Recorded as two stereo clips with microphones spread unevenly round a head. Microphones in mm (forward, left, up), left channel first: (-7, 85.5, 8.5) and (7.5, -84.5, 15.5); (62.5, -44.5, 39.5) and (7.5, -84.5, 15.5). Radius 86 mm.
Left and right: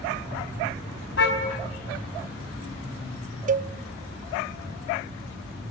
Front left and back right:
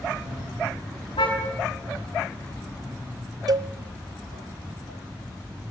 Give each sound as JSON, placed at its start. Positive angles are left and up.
{"t": 1.2, "sound": "a car horn", "azimuth_deg": 75, "distance_m": 5.0}
{"t": 3.5, "sound": "a cowbell", "azimuth_deg": -135, "distance_m": 0.7}